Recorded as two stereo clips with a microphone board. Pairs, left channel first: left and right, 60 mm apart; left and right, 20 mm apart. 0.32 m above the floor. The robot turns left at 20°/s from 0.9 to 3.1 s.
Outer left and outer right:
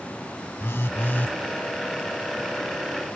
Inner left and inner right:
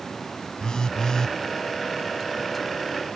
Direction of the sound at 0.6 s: 40° left (ahead or behind).